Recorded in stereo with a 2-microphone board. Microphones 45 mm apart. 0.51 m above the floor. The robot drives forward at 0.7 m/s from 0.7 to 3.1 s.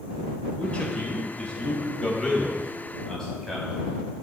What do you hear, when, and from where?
0.6 s a man speaking: 30° left (ahead or behind), 2 m; by 3.9 s 15° left (ahead or behind), 3.5 m